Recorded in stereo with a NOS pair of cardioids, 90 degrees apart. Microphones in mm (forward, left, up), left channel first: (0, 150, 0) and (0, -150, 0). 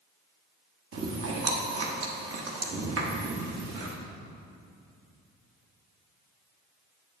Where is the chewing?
50° right, 1.4 m.